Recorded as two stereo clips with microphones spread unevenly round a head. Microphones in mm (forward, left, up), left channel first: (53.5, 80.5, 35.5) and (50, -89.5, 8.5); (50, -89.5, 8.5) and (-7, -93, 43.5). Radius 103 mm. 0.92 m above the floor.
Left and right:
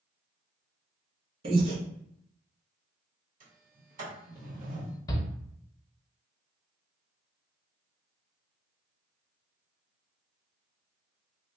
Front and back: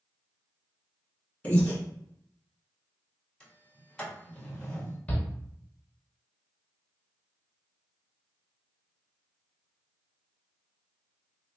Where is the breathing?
45° right, 1.8 m.